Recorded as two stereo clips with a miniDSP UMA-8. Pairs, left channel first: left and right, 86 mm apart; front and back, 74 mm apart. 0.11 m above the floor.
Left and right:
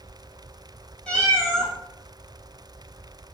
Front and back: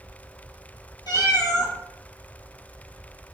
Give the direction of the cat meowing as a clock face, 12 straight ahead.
12 o'clock.